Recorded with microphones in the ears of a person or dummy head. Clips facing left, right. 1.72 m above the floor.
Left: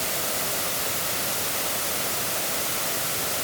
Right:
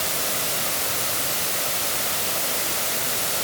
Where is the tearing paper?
No tearing paper in this recording.